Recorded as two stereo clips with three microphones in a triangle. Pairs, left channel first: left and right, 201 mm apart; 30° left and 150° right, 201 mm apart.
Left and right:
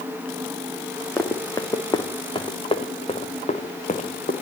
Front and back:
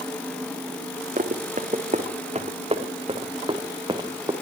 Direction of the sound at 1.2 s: 165° left.